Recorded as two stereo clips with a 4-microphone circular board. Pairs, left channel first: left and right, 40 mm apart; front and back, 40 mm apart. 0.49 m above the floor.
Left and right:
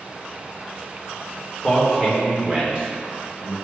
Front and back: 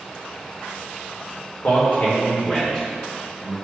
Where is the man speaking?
20° right, 2.0 m; by 3.5 s 95° right, 1.8 m.